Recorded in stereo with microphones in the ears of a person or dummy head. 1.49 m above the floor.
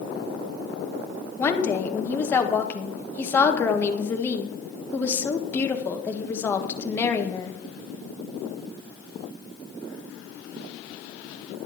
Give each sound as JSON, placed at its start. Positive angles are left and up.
{"t": 1.4, "sound": "a woman speaking", "side_deg": 15, "distance_m": 1.4}